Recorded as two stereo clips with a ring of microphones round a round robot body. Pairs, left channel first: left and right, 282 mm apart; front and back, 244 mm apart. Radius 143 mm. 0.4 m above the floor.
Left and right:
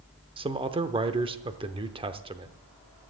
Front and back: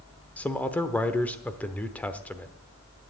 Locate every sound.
0.4 s a man speaking: 70° right, 0.8 m